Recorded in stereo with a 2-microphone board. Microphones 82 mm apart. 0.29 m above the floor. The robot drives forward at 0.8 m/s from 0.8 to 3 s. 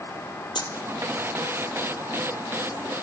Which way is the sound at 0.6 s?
60° left (ahead or behind).